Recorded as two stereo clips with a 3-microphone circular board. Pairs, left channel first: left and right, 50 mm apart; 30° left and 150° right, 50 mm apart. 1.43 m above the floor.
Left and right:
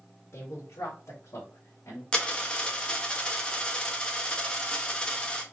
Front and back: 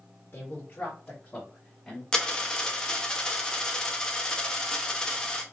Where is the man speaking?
70° left, 1.3 m; by 2.0 s 115° left, 1.6 m.